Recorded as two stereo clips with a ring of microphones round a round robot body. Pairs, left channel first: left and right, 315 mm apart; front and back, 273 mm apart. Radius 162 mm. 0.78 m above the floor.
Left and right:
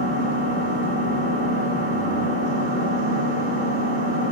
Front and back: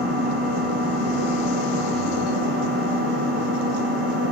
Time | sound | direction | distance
0.0 | an engine running | 155° left | 0.9 m